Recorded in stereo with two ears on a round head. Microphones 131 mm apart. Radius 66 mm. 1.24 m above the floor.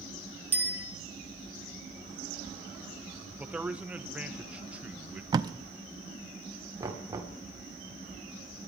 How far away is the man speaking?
About 1.1 m.